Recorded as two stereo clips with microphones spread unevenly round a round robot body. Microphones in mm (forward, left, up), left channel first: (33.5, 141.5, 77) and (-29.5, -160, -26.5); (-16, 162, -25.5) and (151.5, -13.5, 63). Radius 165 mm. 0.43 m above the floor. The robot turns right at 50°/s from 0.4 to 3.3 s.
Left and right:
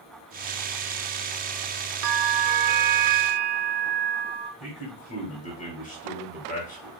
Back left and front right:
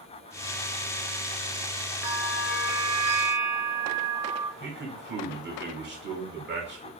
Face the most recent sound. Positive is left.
turn(degrees=5)